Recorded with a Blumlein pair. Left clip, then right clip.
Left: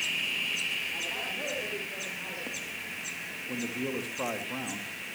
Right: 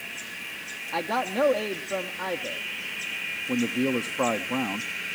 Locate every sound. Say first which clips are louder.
0.9 s a man speaking: right 6 dB; 50° right, 1.1 m
3.5 s a man speaking: right 7 dB; 65° right, 1.1 m